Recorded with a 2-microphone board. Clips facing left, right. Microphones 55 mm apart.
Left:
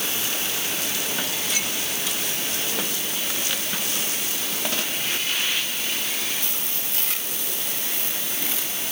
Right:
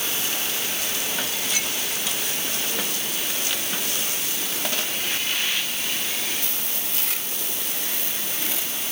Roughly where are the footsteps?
I don't hear footsteps.